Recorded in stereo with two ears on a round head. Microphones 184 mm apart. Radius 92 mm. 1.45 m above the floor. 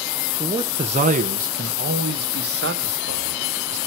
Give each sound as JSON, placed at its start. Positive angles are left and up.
{"t": 0.4, "sound": "a man speaking", "side_deg": -20, "distance_m": 0.9}